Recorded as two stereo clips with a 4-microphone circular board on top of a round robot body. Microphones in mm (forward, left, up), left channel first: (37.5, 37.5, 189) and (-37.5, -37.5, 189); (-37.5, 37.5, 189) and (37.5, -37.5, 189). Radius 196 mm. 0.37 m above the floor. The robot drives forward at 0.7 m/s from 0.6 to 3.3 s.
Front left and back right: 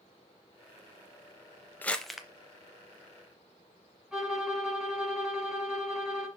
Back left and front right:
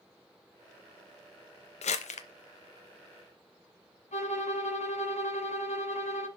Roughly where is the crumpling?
Behind left.